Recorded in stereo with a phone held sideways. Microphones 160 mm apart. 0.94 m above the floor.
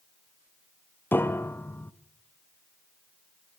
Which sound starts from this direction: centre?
A piano, at 1.1 s.